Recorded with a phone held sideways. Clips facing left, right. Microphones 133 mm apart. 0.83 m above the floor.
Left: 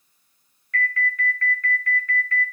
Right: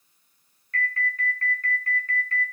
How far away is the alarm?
About 1.7 m.